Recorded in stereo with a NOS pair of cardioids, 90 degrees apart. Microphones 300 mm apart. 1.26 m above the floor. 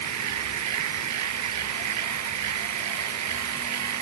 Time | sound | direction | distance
0.0 | a machine running | 65° right | ?